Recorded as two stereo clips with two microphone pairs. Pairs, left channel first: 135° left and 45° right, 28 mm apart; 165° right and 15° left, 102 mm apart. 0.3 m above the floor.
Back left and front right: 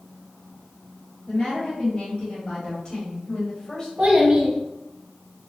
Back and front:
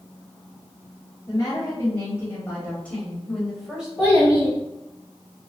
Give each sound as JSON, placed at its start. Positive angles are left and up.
{"t": 1.3, "sound": "a woman speaking", "azimuth_deg": 170, "distance_m": 1.8}
{"t": 4.0, "sound": "a child speaking", "azimuth_deg": -85, "distance_m": 1.0}